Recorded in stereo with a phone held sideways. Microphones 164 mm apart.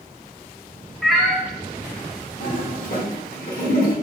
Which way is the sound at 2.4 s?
60° left (ahead or behind).